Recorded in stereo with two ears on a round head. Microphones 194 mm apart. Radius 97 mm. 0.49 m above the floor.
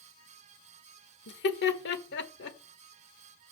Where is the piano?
I don't hear a piano.